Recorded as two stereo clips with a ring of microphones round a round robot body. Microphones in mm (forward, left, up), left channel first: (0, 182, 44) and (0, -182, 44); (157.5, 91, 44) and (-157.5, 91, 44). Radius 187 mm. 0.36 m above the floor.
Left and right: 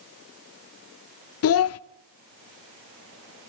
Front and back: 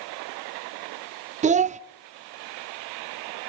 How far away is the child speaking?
About 0.6 m.